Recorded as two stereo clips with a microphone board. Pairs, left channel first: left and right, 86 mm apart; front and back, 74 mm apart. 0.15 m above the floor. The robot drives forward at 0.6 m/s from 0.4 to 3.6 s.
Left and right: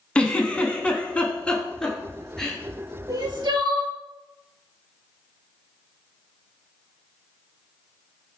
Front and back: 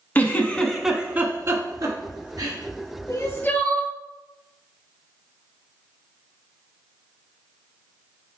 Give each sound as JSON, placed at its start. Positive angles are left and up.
{"t": 0.1, "sound": "a giggle", "azimuth_deg": 30, "distance_m": 0.6}
{"t": 3.1, "sound": "crying", "azimuth_deg": -45, "distance_m": 0.7}